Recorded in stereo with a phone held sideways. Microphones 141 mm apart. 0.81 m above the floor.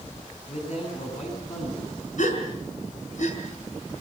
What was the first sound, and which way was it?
A man speaking, 55° left (ahead or behind).